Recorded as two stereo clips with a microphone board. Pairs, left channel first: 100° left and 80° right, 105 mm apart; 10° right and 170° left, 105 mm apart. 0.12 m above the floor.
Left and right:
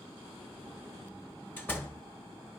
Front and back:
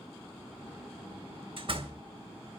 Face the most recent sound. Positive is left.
turn(degrees=170)